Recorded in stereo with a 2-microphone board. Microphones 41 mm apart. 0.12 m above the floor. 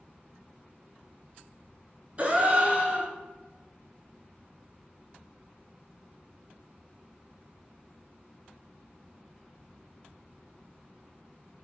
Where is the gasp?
35° right (ahead or behind), 0.7 m.